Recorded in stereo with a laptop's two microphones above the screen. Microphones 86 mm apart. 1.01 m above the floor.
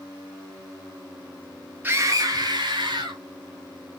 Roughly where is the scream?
Right.